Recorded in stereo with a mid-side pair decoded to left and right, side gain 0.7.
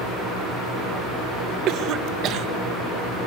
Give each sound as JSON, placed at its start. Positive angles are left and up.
{"t": 1.7, "sound": "a cough", "azimuth_deg": -55, "distance_m": 2.0}